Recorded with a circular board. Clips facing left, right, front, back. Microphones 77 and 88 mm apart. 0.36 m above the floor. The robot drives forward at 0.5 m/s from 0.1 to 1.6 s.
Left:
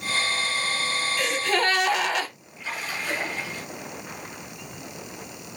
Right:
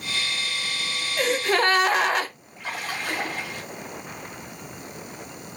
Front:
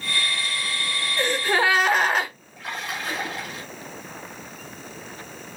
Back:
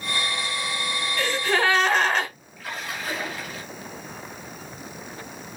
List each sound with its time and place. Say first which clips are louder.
1.2 s a gasp: right 4 dB, front 1 dB; 60° right, 0.9 m; by 2.3 s 80° right, 0.8 m
2.6 s a splash: right 1 dB, front 2 dB; 65° right, 3 m